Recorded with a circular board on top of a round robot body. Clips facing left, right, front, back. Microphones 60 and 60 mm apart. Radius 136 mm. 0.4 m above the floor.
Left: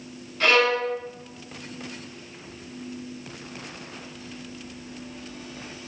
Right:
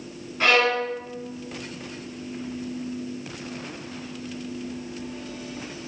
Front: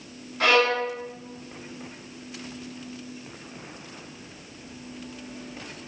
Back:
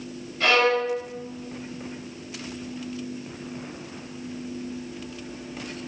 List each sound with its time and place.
0.4 s a violin: 25° right, 1.5 m